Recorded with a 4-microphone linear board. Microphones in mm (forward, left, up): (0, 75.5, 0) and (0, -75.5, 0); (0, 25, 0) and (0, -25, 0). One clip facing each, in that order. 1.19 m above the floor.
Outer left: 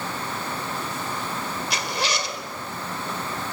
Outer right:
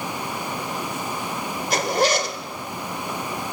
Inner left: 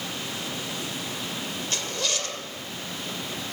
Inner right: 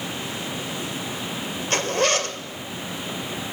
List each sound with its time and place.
1.7 s a zipper: 50° right (ahead or behind), 2.0 m